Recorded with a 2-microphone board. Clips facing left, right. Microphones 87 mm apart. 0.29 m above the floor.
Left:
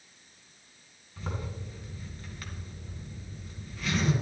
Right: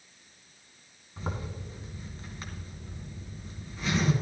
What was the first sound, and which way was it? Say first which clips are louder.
A zipper: right 1 dB; 25° right (ahead or behind).